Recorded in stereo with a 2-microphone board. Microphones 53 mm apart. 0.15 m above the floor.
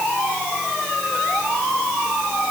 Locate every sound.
Only background noise.